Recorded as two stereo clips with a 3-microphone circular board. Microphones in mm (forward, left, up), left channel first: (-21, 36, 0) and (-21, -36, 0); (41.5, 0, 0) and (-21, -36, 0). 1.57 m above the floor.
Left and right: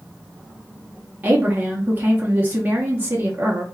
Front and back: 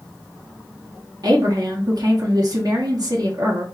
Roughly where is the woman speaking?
Behind right.